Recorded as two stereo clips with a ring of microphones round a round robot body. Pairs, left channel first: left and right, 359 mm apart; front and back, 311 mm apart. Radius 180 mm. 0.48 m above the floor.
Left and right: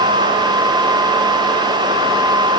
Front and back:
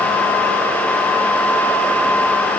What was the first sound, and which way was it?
Only background noise.